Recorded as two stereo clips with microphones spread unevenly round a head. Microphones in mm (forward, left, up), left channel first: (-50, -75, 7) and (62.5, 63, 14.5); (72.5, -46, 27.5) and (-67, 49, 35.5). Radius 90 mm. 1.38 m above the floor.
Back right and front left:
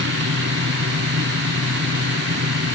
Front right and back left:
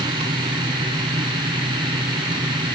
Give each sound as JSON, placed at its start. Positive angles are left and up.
{"t": 0.0, "sound": "a machine running", "azimuth_deg": 80}